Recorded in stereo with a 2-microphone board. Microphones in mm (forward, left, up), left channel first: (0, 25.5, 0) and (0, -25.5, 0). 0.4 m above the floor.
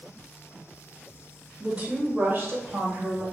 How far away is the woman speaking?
About 0.8 m.